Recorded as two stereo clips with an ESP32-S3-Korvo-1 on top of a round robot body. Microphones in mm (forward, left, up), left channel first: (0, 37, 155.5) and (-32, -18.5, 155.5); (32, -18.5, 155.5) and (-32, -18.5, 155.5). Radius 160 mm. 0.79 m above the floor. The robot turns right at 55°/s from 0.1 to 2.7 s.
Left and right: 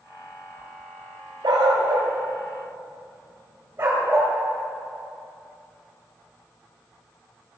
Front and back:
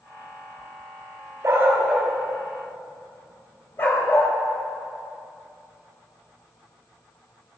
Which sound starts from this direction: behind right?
A dog barking, at 1.4 s.